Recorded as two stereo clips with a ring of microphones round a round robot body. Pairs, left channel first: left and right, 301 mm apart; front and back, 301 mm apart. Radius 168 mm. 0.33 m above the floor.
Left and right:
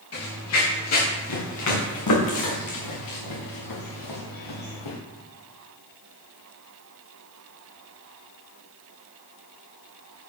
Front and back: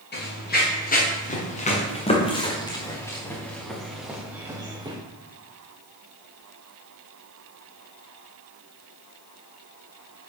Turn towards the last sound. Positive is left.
turn(degrees=105)